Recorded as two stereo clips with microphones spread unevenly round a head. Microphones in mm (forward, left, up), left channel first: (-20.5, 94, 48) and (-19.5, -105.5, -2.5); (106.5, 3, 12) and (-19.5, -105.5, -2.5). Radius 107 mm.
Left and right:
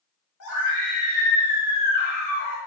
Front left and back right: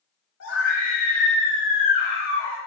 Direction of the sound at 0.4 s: 70° left.